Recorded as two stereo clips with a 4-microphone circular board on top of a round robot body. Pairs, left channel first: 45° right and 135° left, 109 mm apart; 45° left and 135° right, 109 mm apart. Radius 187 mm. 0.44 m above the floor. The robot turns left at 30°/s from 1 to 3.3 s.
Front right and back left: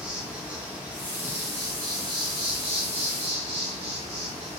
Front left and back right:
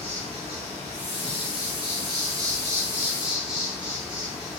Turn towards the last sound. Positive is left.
turn(degrees=145)